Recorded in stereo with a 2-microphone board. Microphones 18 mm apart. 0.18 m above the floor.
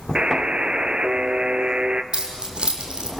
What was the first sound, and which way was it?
A buzzer, 60° right (ahead or behind).